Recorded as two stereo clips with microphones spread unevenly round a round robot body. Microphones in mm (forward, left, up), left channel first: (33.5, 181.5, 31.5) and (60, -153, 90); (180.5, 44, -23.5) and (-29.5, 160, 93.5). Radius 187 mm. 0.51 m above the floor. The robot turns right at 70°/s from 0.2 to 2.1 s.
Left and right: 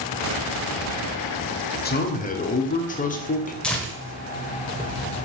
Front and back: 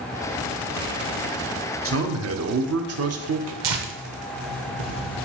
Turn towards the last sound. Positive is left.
turn(degrees=180)